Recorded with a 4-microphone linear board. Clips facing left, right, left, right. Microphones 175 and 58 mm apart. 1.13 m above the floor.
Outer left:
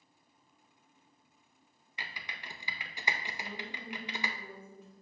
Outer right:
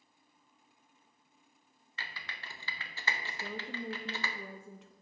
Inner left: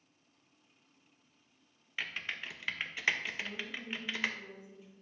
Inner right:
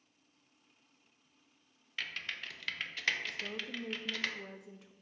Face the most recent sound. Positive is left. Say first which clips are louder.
# outer right 3 dB, even
turn(degrees=-80)